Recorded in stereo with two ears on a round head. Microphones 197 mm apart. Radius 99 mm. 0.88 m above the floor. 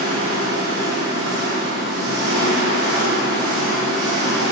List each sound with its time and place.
0.0 s an engine running: 50° right (ahead or behind), 0.8 m